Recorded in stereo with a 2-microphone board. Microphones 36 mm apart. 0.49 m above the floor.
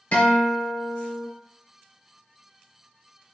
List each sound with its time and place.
0.1 s a guitar: 60° left (ahead or behind), 1.3 m